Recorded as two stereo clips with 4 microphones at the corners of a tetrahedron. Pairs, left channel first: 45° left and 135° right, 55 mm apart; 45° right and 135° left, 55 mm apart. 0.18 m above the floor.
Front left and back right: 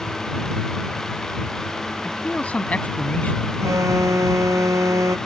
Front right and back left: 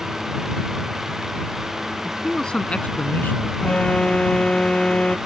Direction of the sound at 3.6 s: 115° right.